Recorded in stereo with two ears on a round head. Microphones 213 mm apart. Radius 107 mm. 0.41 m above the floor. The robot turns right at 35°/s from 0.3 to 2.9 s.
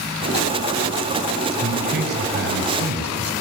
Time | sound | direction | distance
1.6 | a man speaking | 140° right | 3 m